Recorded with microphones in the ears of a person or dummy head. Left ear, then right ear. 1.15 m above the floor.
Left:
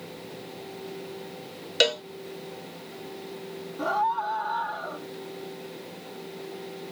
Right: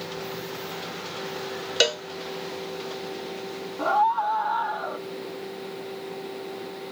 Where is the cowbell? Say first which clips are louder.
Even; 5° right (ahead or behind).